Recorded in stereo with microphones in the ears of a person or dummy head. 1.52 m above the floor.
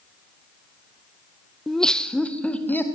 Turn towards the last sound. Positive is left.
turn(degrees=10)  # may be behind; listen again after turning